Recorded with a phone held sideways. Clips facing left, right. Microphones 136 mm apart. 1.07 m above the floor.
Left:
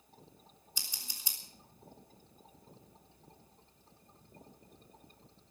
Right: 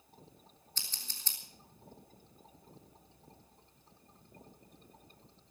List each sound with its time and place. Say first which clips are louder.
0.8 s scissors: left 1 dB; 15° left (ahead or behind), 3.5 m